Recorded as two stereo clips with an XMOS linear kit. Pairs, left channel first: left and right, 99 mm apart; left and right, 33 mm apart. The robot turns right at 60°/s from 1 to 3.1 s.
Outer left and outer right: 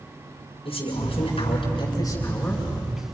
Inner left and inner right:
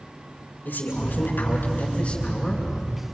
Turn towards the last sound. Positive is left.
turn(degrees=-155)